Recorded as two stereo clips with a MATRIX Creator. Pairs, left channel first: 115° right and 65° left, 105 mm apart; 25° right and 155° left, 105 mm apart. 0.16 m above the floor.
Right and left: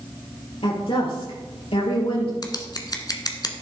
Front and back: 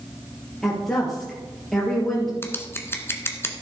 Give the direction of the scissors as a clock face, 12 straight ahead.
3 o'clock.